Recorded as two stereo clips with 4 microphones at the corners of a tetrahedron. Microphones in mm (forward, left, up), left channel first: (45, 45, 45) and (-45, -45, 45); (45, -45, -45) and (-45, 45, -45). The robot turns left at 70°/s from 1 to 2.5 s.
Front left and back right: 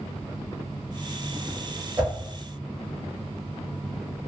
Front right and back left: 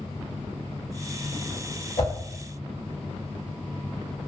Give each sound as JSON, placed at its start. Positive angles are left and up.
{"t": 2.0, "sound": "a whoosh", "azimuth_deg": -55, "distance_m": 1.9}